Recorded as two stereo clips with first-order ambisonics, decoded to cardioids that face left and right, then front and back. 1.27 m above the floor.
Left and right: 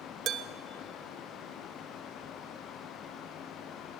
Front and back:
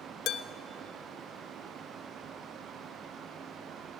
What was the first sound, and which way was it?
Dishes clattering, 40° right.